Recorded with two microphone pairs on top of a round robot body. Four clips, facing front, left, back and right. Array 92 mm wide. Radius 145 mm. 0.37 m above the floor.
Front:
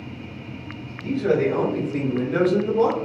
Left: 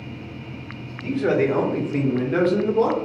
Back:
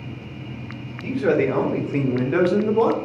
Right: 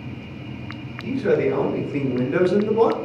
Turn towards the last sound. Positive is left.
turn(degrees=-155)